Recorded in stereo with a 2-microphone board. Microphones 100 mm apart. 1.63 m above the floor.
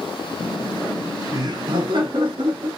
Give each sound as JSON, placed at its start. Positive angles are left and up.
{"t": 0.4, "sound": "laughter", "side_deg": 0, "distance_m": 0.8}